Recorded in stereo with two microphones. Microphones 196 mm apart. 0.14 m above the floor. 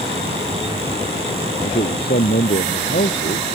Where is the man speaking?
60° left (ahead or behind); by 3.5 s 50° left (ahead or behind).